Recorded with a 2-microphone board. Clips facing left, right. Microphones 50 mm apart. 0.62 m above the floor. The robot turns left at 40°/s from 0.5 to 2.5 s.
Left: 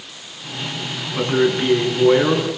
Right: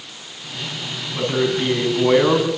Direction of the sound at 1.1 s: 20° left.